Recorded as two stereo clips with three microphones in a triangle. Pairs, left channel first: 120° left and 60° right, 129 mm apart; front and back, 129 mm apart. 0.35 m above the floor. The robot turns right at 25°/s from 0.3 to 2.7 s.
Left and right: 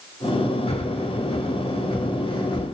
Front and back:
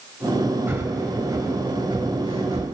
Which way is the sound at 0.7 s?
115° left.